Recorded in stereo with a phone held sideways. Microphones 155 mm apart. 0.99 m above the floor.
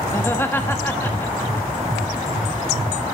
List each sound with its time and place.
0.1 s laughter: 15° left (ahead or behind), 1.3 m